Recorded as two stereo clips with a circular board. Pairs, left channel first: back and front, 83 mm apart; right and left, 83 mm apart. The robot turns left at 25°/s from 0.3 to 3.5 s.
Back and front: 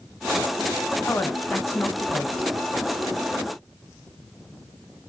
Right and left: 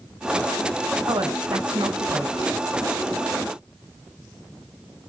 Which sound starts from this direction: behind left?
A woman speaking, at 1.1 s.